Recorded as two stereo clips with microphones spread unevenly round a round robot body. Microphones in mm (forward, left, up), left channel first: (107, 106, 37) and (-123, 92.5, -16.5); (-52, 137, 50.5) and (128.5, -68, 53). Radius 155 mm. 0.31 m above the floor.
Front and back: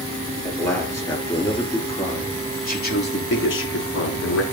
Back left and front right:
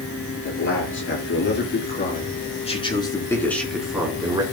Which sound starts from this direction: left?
A man speaking, at 0.5 s.